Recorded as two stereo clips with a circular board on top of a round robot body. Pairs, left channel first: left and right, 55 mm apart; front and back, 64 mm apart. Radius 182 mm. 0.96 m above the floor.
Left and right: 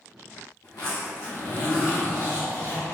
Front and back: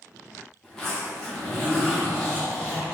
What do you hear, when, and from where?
0.6 s a zipper: 80° left, 1.4 m